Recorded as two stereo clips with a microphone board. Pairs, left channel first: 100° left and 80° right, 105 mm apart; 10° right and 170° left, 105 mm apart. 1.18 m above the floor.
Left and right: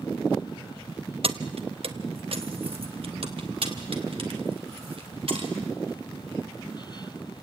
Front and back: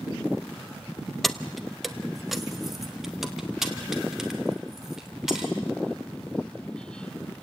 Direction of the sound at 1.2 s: 100° right.